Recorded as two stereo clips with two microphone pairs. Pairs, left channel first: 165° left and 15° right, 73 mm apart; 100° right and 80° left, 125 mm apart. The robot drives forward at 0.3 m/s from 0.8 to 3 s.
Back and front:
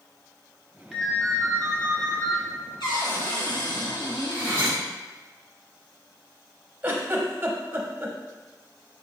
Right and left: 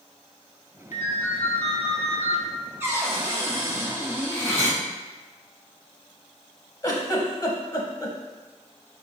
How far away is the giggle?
About 0.6 m.